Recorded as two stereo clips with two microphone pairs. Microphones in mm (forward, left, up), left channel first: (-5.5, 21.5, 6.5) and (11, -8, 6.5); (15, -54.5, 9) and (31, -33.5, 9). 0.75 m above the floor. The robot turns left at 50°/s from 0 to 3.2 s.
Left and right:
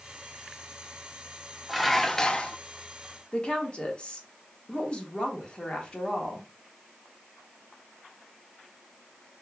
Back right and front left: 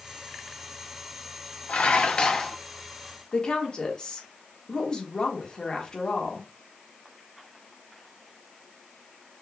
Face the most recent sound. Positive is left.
turn(degrees=180)